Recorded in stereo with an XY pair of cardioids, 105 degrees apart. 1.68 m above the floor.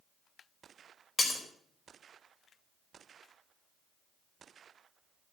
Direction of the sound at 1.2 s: 35° left.